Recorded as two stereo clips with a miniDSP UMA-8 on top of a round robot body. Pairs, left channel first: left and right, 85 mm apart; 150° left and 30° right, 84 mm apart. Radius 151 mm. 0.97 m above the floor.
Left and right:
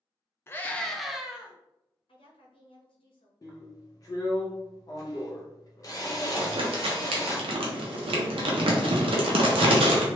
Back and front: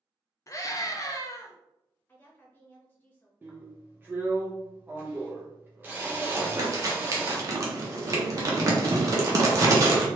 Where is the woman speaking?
80° left, 1.1 m.